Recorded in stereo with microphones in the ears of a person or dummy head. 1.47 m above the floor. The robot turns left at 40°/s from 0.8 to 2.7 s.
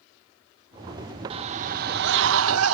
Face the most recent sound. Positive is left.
turn(degrees=-85)